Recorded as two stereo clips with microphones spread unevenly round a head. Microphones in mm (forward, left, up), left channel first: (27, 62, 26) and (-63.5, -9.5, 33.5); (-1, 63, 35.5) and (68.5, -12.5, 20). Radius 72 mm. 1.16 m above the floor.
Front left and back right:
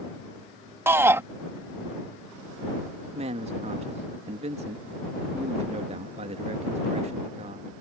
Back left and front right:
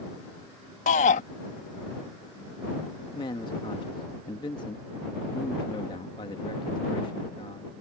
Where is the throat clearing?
No throat clearing in this recording.